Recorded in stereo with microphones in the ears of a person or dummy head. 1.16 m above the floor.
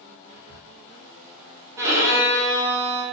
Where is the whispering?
10° right (ahead or behind), 1.7 m.